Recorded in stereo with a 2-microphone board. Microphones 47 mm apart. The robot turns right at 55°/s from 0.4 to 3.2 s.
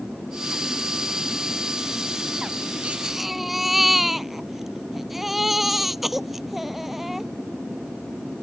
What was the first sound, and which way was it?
A baby crying, 25° right (ahead or behind).